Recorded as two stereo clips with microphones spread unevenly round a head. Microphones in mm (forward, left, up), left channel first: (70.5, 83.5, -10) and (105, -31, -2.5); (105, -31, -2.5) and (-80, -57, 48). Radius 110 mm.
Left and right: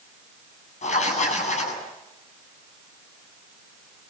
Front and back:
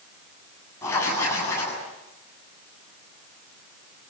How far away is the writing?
About 8 m.